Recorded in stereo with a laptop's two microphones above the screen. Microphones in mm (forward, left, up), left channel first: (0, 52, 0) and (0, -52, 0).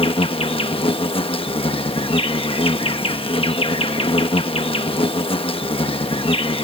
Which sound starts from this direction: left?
An insect, at 0.0 s.